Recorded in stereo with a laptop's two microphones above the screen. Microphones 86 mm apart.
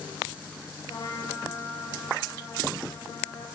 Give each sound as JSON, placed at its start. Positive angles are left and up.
{"t": 0.9, "sound": "a trumpet", "side_deg": 60, "distance_m": 3.0}